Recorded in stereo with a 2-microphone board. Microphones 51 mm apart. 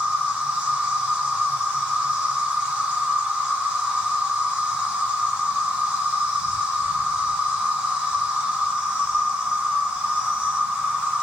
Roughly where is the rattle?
I don't hear a rattle.